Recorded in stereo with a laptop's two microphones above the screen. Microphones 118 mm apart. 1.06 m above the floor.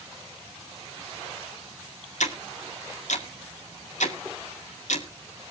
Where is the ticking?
85° left, 1.9 m.